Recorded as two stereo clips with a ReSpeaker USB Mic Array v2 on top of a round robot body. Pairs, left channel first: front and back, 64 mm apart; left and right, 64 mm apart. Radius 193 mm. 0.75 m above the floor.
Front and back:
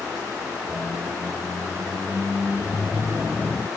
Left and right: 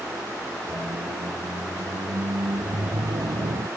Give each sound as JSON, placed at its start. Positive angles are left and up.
{"t": 0.7, "sound": "a squeak", "azimuth_deg": -95}